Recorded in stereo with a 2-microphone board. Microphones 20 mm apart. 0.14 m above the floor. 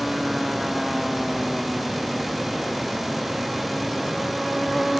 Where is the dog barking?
No dog barking in this recording.